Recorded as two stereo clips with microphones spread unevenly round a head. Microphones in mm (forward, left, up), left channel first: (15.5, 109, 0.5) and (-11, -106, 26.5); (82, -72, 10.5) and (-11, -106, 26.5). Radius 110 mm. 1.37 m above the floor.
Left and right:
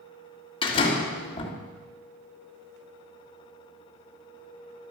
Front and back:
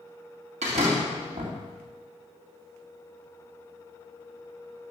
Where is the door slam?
150° left, 2 m.